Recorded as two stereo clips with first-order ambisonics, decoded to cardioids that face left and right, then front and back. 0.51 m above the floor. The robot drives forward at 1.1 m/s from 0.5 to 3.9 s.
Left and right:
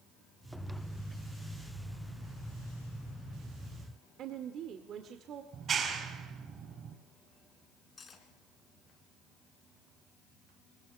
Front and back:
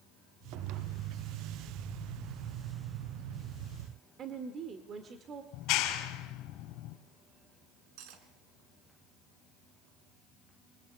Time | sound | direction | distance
4.2 | a woman speaking | 130° right | 1.6 m
5.5 | a clap | 25° right | 4 m
8.0 | cutlery clinking | 160° left | 3 m